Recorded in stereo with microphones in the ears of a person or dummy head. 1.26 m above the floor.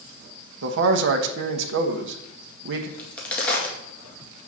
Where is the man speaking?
70° right (ahead or behind), 1.0 m.